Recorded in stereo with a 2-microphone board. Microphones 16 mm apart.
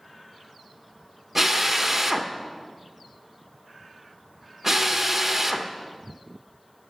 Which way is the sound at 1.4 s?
20° right (ahead or behind).